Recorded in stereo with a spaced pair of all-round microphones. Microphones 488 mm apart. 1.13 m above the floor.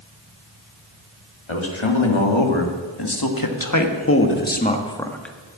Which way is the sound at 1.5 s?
75° left (ahead or behind).